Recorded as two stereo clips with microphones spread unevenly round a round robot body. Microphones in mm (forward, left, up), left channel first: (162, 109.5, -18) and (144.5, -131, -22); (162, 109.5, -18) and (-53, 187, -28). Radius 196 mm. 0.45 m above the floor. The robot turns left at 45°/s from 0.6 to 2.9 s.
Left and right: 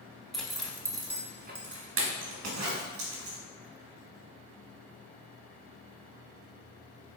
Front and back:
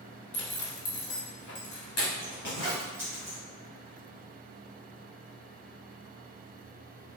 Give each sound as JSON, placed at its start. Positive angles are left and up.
{"t": 0.3, "sound": "a zipper", "azimuth_deg": -5, "distance_m": 1.4}